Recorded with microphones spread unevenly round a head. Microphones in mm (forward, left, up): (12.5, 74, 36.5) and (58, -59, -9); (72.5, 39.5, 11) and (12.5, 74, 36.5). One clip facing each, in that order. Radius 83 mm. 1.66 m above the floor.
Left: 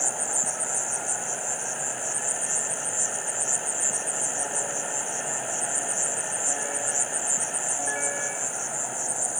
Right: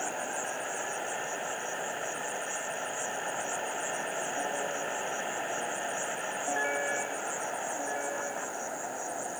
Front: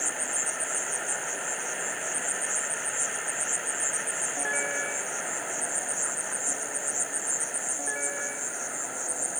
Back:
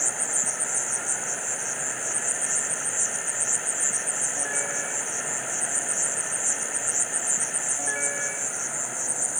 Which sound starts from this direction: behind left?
An insect, at 0.0 s.